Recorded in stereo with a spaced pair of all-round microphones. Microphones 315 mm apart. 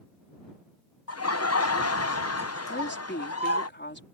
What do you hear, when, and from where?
1.1 s laughter: 50° left (ahead or behind)
2.7 s a woman speaking: 35° left (ahead or behind)